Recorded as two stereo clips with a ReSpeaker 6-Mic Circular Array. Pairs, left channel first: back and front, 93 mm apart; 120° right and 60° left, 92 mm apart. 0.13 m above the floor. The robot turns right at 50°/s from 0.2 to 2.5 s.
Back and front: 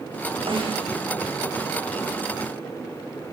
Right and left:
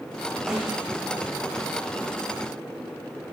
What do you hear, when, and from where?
0.5 s a snare drum: 25° right, 7.5 m; by 0.9 s 5° right, 7.5 m